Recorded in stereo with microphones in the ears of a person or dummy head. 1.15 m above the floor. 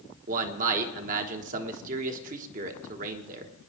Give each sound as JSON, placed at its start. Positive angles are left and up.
{"t": 0.3, "sound": "a man speaking", "side_deg": -45, "distance_m": 1.3}